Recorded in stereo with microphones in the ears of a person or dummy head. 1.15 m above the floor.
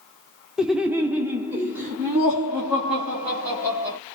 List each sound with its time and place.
0.6 s laughter: 5° right (ahead or behind), 0.5 m; by 4.0 s 10° right (ahead or behind), 2 m